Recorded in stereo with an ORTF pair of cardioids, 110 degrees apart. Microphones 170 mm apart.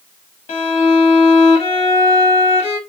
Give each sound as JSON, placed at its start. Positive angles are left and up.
{"t": 0.5, "sound": "a violin", "azimuth_deg": 35, "distance_m": 1.4}